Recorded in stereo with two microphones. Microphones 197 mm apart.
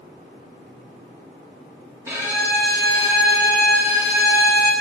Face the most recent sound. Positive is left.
turn(degrees=-10)  # may be behind; listen again after turning